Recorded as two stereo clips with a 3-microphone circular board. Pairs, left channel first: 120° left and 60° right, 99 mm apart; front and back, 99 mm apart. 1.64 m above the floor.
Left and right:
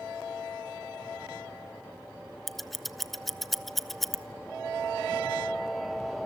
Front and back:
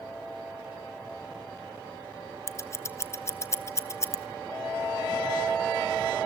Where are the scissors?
30° left, 0.7 m.